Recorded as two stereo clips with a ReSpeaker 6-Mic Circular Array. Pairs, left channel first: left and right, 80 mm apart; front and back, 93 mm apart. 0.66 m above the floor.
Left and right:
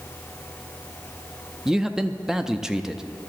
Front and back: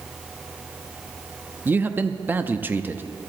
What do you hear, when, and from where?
1.6 s a man speaking: 165° right, 0.6 m